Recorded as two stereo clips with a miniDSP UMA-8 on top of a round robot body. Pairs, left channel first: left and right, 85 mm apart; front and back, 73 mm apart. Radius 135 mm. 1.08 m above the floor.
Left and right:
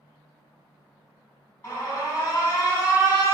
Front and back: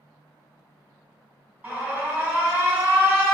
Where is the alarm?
125° left, 1.2 m.